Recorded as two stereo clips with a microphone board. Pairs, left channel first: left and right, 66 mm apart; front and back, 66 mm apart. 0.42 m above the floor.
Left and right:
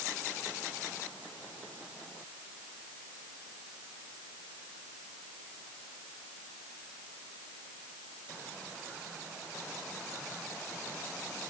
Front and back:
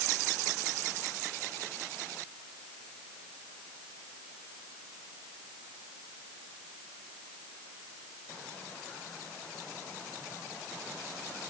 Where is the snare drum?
No snare drum in this recording.